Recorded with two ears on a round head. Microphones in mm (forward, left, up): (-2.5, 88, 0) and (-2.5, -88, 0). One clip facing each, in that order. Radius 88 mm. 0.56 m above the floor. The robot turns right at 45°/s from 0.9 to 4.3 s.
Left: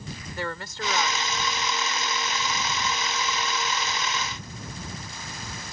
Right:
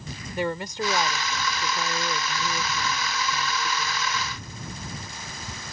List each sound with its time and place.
0.4 s a woman speaking: 160° right; by 4.4 s 5° right